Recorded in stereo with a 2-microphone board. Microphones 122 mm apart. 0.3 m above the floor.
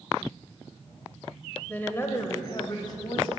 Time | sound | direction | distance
1.7 | a woman speaking | 10° left (ahead or behind) | 0.9 m